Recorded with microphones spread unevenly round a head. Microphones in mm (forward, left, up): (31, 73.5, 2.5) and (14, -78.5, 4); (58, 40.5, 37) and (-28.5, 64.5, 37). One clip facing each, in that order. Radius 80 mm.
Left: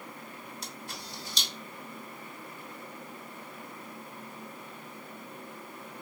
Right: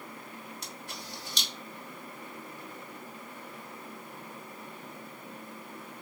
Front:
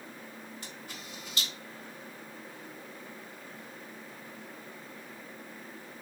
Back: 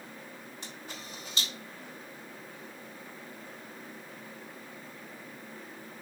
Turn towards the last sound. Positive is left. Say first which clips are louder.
# even, back 1 dB
turn(degrees=-120)